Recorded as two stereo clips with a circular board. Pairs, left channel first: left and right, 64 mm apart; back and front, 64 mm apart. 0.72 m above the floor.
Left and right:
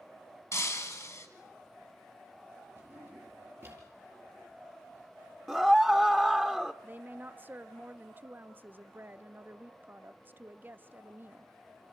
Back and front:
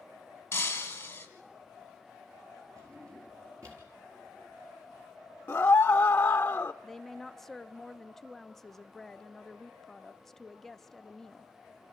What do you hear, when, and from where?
0.5 s breaking glass: 125° left, 2.5 m
2.8 s a drawer: 30° right, 5 m
5.5 s a scream: 170° left, 0.8 m
6.8 s a woman speaking: 100° right, 0.7 m